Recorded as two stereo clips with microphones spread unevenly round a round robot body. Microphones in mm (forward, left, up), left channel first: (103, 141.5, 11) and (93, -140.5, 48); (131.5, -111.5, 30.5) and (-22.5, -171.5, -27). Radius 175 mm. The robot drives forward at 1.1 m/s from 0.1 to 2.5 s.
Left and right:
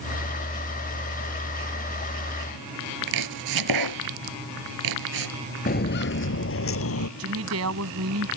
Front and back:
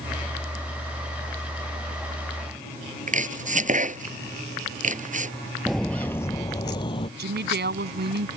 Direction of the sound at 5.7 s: 60° left.